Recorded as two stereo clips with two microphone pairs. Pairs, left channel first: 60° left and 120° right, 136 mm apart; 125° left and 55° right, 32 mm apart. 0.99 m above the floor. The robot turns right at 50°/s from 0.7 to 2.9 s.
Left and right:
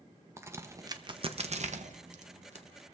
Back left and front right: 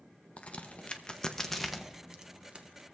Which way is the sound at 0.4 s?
170° left.